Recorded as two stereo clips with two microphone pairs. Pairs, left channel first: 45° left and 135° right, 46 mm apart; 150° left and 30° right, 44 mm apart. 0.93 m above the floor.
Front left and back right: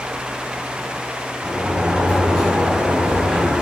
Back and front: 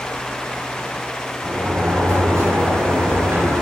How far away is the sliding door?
About 6 m.